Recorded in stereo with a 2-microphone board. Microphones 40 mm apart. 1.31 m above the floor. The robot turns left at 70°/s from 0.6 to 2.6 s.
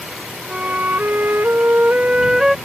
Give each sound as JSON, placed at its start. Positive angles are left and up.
{"t": 0.5, "sound": "a flute", "azimuth_deg": -40}